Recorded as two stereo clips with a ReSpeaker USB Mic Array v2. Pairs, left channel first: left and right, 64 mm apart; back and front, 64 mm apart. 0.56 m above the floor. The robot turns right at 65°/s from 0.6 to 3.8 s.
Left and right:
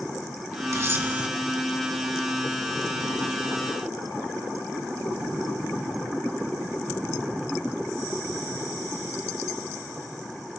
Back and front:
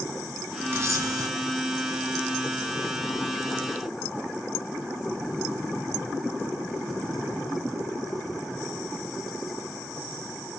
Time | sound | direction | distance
0.7 | a camera shutter | 50° right | 4.5 m